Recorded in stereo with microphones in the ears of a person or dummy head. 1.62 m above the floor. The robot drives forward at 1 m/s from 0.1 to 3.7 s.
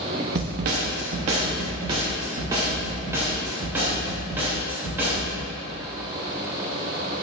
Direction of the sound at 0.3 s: 45° right (ahead or behind).